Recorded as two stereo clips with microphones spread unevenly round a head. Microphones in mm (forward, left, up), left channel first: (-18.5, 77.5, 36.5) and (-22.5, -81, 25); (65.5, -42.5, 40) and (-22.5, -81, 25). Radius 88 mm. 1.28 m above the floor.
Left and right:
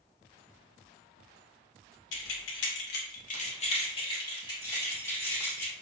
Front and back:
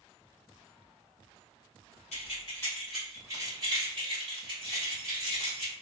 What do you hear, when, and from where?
2.1 s keys jangling: 70° left, 0.6 m; by 5.7 s 160° left, 2.0 m